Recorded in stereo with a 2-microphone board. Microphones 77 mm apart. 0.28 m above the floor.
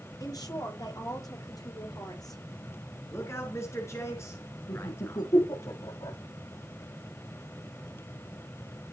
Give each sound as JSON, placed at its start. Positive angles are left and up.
{"t": 0.2, "sound": "a woman speaking", "side_deg": 55, "distance_m": 6.0}
{"t": 3.1, "sound": "a man speaking", "side_deg": 35, "distance_m": 4.0}
{"t": 4.7, "sound": "laughter", "side_deg": 80, "distance_m": 10.0}